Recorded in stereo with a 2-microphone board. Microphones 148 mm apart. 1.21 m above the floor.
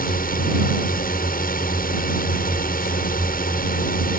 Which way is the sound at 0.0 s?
70° left (ahead or behind).